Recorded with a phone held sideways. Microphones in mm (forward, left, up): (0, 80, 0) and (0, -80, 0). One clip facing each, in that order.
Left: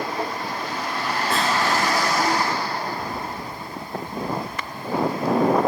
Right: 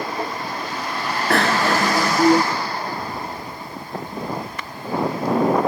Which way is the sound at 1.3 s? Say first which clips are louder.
Right 5 dB; 70° right (ahead or behind).